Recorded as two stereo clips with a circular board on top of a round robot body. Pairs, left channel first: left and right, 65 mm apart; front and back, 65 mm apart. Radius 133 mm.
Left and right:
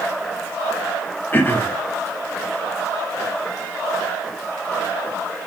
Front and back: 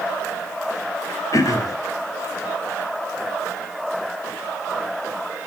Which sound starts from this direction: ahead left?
Throat clearing, at 1.3 s.